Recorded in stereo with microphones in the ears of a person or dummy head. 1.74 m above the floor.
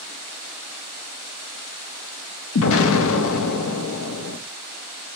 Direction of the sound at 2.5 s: 75° left (ahead or behind).